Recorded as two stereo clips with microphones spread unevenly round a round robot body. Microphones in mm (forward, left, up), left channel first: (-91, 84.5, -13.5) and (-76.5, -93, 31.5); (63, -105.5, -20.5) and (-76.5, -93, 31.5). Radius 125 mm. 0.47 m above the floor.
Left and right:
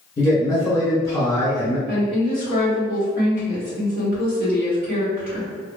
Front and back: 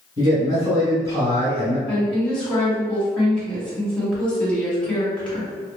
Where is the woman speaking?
60° right, 1.5 m.